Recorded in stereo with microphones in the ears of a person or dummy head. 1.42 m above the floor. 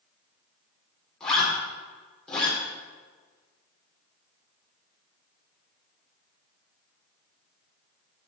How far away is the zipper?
About 4 m.